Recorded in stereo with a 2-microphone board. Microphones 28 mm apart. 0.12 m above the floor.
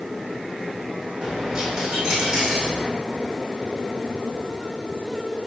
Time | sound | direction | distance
1.2 | a dropped coin | 25° right (ahead or behind) | 3.5 m